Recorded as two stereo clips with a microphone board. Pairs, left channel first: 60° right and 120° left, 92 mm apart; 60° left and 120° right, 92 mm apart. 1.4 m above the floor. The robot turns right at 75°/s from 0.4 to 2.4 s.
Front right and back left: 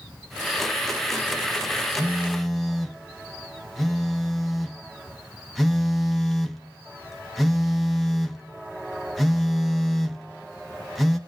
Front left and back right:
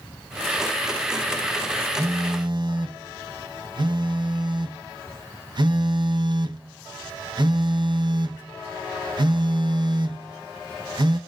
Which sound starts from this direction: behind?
A phone buzzing, at 2.0 s.